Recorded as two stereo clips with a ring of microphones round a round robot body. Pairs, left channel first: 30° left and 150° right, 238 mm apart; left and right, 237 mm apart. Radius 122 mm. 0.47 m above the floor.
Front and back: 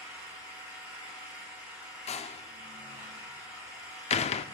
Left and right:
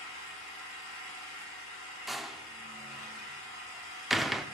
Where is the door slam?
Straight ahead, 0.6 m.